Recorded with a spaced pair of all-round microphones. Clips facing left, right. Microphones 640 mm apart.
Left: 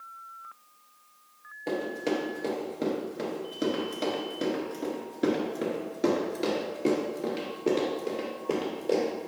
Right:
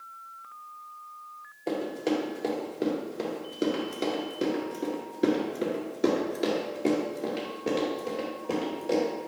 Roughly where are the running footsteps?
Left.